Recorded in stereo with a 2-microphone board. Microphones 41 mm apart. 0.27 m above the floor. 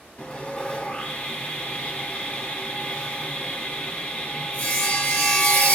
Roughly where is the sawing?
Left.